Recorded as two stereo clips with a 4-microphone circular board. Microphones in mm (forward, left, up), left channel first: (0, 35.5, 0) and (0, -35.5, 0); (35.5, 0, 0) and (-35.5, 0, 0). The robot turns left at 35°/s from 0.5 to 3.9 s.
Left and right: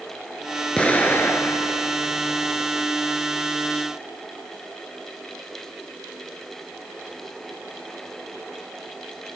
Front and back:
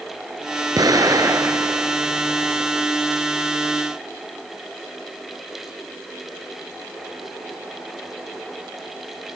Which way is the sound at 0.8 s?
165° left.